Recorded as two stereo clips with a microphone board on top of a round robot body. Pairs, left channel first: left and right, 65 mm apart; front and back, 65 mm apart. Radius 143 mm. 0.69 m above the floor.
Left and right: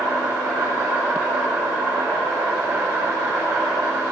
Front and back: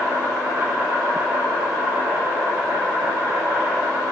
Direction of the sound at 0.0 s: 125° right.